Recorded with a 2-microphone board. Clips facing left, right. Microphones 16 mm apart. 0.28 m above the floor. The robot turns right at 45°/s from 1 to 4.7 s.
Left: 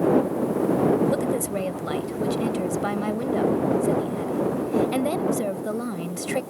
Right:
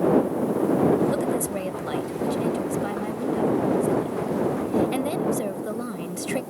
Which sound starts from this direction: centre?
A woman speaking, at 1.1 s.